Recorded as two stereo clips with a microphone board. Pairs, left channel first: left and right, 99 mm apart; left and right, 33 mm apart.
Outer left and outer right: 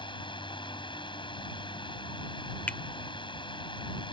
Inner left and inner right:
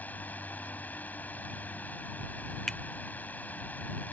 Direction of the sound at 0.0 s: 55° left (ahead or behind).